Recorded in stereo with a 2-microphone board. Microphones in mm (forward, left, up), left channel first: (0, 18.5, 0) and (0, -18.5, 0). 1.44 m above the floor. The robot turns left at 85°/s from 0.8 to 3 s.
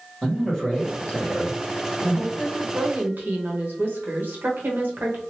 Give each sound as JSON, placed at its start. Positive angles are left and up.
{"t": 0.2, "sound": "a man speaking", "azimuth_deg": 170, "distance_m": 1.4}
{"t": 2.4, "sound": "a woman speaking", "azimuth_deg": -15, "distance_m": 1.0}